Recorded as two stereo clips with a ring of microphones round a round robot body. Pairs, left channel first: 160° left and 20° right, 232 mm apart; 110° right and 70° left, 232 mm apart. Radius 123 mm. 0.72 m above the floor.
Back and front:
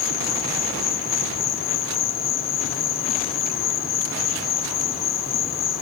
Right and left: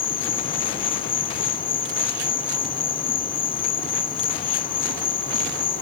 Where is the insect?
170° right, 1.6 m.